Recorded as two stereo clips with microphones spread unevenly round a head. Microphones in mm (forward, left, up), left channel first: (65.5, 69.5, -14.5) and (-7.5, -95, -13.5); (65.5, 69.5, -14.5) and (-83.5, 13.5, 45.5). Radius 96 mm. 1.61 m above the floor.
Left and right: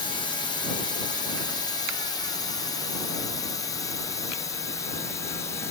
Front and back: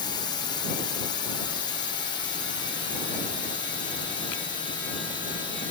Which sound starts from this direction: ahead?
A drone, at 0.0 s.